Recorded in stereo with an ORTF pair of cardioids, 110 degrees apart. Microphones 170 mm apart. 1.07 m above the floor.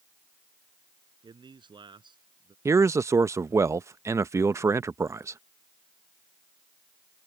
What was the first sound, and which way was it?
A man speaking, 30° right.